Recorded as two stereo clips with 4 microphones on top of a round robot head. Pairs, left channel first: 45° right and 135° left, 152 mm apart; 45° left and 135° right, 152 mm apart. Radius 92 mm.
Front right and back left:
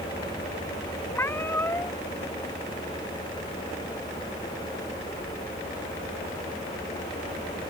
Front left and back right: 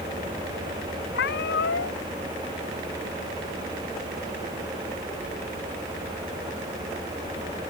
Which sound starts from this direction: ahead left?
A cat meowing, at 1.1 s.